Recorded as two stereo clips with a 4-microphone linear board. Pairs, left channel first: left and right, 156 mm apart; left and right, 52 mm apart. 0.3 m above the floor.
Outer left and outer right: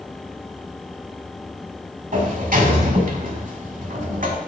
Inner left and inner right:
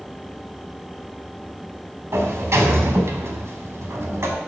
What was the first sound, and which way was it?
A sliding door, 60° right (ahead or behind).